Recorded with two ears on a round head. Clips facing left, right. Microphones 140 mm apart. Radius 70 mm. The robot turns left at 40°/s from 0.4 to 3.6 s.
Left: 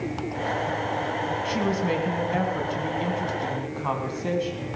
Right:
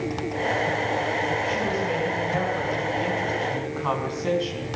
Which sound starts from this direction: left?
A woman speaking, at 1.4 s.